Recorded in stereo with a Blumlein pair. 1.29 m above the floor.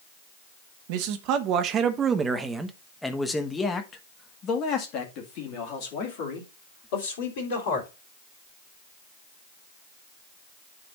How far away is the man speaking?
About 1.5 m.